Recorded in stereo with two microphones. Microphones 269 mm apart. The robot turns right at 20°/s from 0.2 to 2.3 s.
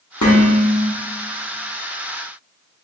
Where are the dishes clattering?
80° left, 0.9 m; by 0.9 s 75° left (ahead or behind), 0.9 m.